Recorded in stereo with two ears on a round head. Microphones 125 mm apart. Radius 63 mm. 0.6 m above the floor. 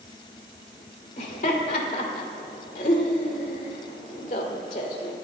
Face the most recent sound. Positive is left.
turn(degrees=55)  # may be behind; listen again after turning